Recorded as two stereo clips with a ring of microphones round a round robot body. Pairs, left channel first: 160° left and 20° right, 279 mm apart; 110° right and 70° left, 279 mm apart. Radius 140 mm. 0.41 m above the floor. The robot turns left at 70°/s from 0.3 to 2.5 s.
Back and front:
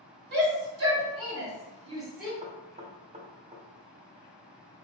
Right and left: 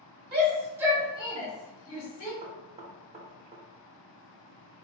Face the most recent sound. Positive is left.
turn(degrees=20)